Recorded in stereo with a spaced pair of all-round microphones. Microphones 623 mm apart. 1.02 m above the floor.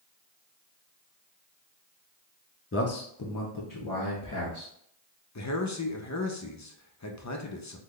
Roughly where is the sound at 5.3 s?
Left.